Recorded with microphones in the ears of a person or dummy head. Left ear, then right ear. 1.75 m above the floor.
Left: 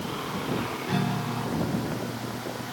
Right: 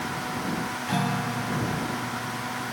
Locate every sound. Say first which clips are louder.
0.9 s a guitar: right 5 dB; 15° right (ahead or behind)